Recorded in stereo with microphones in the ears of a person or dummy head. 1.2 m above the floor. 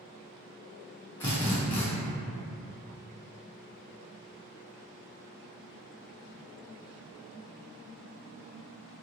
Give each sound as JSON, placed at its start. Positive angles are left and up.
{"t": 1.2, "sound": "a drill", "side_deg": 15, "distance_m": 0.5}